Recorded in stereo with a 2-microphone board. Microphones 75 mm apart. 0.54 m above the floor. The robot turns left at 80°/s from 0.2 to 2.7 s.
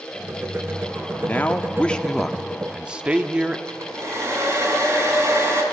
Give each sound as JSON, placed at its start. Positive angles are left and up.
{"t": 1.1, "sound": "a man speaking", "side_deg": 25, "distance_m": 0.6}
{"t": 3.7, "sound": "a hair dryer", "side_deg": -40, "distance_m": 2.0}